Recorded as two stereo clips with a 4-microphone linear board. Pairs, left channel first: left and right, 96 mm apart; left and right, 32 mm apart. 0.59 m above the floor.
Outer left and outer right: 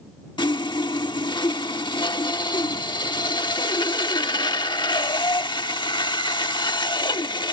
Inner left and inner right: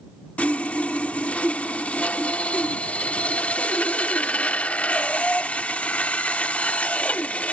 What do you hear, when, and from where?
0.4 s sawing: 50° left (ahead or behind)